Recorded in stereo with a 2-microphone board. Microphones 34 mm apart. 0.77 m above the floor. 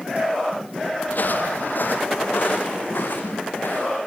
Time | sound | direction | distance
1.1 | footsteps | 60° left (ahead or behind) | 1.6 m